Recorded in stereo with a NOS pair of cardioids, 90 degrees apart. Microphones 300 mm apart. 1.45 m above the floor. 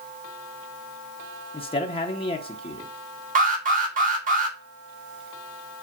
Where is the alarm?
25° right, 1.9 m.